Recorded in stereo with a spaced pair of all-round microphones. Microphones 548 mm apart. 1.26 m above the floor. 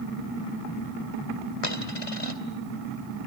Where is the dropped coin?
70° left (ahead or behind), 2 m.